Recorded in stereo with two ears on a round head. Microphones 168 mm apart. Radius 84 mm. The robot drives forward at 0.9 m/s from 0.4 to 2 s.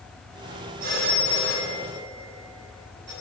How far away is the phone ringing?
About 5 m.